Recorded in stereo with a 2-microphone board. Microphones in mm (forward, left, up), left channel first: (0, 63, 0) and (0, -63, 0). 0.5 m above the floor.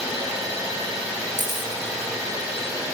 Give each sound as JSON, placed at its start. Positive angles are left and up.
{"t": 0.0, "sound": "an engine running", "side_deg": -30, "distance_m": 3.5}
{"t": 1.4, "sound": "a camera shutter", "side_deg": -85, "distance_m": 2.5}